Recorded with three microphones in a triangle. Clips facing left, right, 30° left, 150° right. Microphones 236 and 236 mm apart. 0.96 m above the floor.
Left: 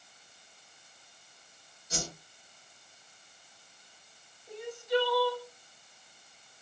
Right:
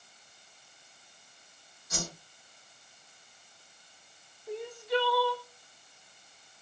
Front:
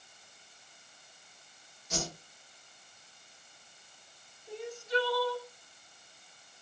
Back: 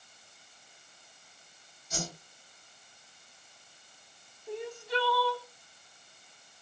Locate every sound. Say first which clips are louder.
1.9 s a whoosh: even, front 2 dB; 35° left, 1.3 m
4.5 s crying: left 1 dB, even; 120° right, 1.0 m